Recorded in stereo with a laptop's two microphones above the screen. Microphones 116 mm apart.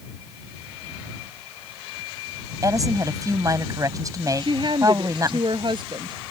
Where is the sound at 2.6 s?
30° right (ahead or behind).